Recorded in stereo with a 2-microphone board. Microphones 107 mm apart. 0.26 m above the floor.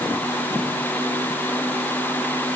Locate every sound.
Only background noise.